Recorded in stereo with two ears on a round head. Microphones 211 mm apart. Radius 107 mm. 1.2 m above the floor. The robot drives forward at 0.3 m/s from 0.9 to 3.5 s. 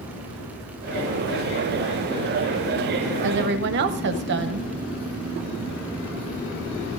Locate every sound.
3.2 s a woman speaking: 55° right (ahead or behind), 0.7 m; by 4.7 s 50° right (ahead or behind), 0.8 m